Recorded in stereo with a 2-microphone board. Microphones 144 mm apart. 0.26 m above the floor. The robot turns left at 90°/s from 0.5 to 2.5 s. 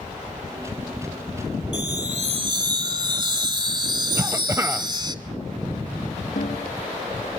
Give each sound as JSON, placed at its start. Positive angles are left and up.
{"t": 1.7, "sound": "a chime", "azimuth_deg": -75, "distance_m": 1.0}
{"t": 4.2, "sound": "a cough", "side_deg": -20, "distance_m": 0.9}
{"t": 6.4, "sound": "a snare drum", "side_deg": 55, "distance_m": 4.5}